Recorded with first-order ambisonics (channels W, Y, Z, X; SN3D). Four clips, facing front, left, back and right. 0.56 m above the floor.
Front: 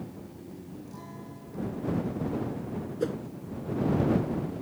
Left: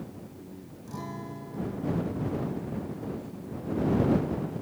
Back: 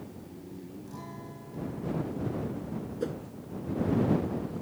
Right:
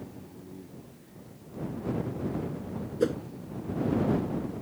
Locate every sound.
0.9 s a guitar: 95° left
3.0 s a whoosh: 75° right